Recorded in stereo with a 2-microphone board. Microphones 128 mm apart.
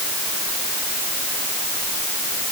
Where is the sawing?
I don't hear sawing.